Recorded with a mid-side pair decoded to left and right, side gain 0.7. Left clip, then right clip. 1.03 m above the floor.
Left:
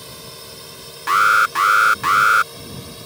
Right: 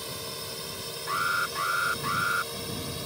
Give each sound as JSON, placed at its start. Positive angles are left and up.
{"t": 0.0, "sound": "a drone", "azimuth_deg": 0}
{"t": 1.1, "sound": "an alarm", "azimuth_deg": 55}